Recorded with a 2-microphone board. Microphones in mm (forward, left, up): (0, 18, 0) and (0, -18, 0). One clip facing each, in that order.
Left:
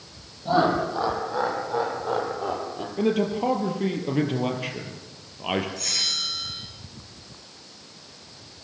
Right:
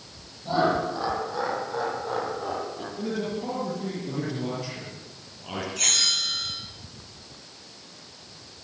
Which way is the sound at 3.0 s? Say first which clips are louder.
Left 8 dB; 55° left (ahead or behind).